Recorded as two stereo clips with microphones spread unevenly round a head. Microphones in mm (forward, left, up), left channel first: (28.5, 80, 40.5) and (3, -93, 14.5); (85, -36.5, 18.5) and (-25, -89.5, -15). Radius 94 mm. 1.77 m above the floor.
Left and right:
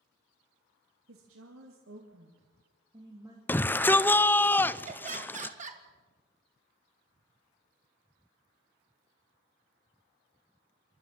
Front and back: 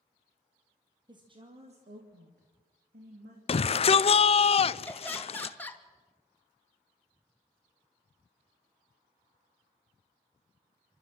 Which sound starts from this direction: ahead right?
Laughter, at 4.9 s.